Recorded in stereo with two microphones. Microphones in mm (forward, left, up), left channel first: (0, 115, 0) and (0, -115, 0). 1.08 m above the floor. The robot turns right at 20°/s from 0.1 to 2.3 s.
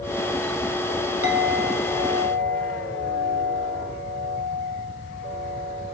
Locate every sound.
1.2 s a clink: 65° right (ahead or behind), 1.5 m; by 6.0 s 80° right, 1.5 m